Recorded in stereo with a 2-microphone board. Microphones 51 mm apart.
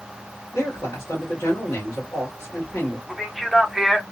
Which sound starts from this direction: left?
A man speaking, at 0.5 s.